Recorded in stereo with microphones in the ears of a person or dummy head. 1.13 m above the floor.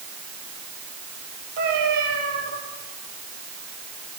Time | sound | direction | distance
1.6 | a cat meowing | 60° right (ahead or behind) | 9.5 m